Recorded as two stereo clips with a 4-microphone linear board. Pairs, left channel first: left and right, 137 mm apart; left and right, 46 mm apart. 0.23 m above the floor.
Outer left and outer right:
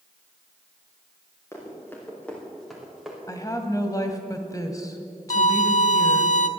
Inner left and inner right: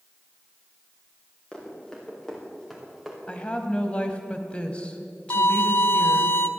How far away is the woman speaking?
About 1.4 m.